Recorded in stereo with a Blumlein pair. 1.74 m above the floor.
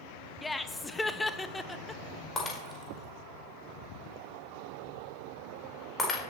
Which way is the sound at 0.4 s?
10° left.